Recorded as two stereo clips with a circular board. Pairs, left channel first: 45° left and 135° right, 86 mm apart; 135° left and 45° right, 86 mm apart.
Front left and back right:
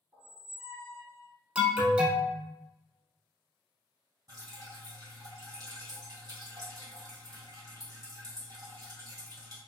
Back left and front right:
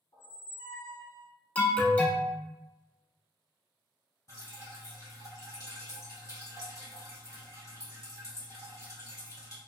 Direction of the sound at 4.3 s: 175° right.